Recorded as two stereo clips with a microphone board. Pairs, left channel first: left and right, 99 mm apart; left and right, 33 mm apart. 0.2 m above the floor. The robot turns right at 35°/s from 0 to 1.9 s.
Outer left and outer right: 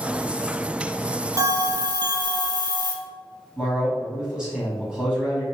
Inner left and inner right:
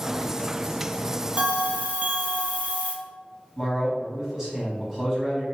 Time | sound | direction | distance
1.4 | a bell | 35° right (ahead or behind) | 0.6 m
3.6 | a man speaking | 10° right (ahead or behind) | 1.1 m